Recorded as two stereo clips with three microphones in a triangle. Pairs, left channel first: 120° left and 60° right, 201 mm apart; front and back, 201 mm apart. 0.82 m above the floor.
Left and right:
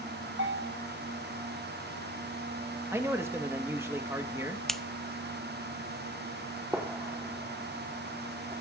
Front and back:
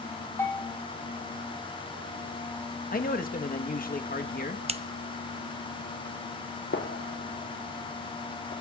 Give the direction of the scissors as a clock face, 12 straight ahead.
5 o'clock.